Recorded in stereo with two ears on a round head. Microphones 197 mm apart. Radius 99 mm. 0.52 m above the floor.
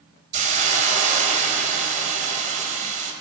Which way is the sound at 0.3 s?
35° right (ahead or behind).